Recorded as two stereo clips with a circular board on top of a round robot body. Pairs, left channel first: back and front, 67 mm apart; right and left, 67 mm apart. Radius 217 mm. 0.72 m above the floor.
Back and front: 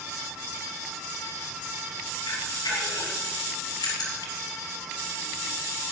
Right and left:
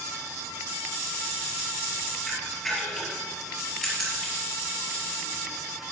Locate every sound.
2.3 s a camera shutter: 175° right, 3 m